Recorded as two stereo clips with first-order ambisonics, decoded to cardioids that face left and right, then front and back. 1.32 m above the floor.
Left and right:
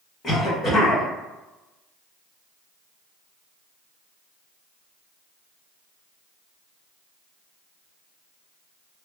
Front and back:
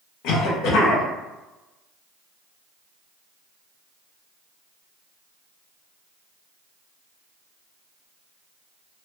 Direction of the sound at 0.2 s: 25° left.